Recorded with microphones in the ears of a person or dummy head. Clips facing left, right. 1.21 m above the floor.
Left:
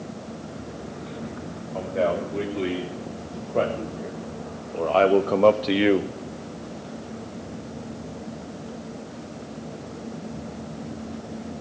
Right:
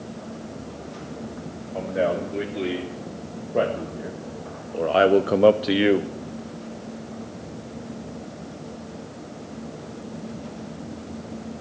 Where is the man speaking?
10° right (ahead or behind), 3 m; by 6.1 s centre (ahead or behind), 0.7 m.